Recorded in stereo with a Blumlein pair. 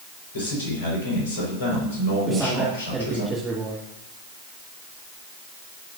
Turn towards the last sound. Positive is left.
turn(degrees=-10)